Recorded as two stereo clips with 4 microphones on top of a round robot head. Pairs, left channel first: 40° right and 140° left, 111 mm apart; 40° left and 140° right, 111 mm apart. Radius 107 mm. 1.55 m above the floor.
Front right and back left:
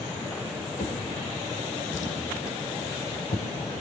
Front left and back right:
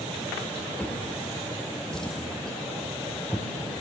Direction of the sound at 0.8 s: 40° right.